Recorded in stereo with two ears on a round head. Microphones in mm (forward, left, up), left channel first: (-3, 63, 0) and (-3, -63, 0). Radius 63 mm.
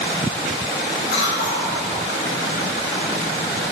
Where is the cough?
80° left, 3.5 m.